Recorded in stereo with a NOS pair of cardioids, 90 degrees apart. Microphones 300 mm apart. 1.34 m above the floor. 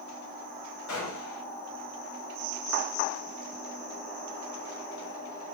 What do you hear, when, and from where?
0.9 s a gunshot: 65° left, 3 m